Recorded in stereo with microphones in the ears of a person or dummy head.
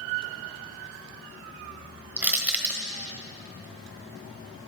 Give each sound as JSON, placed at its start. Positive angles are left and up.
{"t": 2.2, "sound": "crushing", "side_deg": -10, "distance_m": 1.3}